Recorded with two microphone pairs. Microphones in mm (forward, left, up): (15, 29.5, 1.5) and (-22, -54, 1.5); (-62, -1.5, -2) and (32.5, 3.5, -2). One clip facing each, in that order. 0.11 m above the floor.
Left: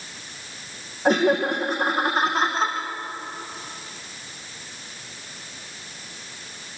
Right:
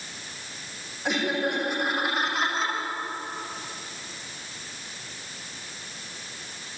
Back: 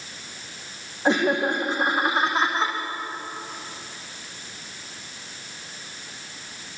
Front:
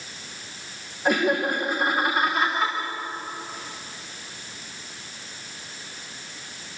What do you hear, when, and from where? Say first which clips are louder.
1.1 s laughter: left 7 dB, back 1 dB; 120° left, 5.5 m